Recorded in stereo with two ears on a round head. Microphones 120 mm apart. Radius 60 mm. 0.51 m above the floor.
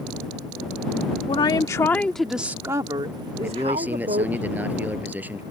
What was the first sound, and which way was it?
A woman speaking, 40° left (ahead or behind).